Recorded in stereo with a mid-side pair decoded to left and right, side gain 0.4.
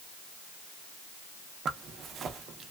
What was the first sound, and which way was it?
A zipper, 65° right.